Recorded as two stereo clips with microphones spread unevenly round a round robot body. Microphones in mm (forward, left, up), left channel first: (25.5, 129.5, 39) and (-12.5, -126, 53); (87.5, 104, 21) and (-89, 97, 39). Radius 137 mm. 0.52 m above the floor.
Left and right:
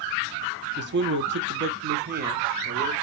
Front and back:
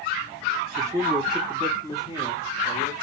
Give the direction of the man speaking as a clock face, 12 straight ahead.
4 o'clock.